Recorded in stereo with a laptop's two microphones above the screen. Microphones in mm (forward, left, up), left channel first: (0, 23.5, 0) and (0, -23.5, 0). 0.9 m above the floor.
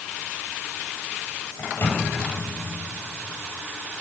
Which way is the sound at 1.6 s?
60° left (ahead or behind).